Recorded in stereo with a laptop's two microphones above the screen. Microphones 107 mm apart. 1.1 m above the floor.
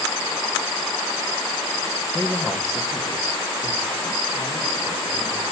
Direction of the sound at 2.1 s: 20° left (ahead or behind).